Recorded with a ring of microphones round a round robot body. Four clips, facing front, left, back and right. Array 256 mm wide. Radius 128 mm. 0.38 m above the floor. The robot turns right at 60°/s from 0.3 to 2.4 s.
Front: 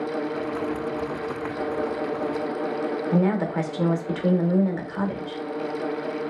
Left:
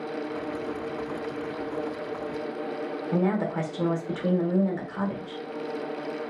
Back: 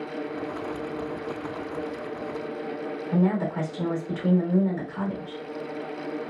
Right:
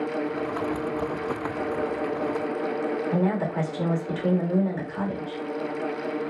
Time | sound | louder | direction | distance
3.1 | a woman speaking | left 3 dB, front 1 dB | straight ahead | 0.8 m